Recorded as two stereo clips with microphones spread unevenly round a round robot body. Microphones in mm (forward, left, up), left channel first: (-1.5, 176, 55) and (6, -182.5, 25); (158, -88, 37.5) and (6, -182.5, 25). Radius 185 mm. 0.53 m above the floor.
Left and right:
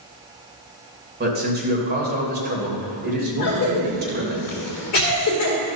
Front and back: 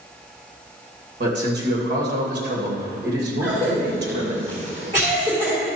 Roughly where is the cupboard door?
No cupboard door in this recording.